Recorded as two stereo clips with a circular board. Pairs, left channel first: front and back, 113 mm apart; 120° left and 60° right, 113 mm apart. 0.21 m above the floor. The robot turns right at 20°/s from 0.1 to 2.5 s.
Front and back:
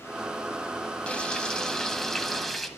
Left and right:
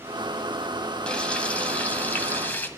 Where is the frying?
60° left, 0.8 m; by 2.7 s 90° left, 0.8 m.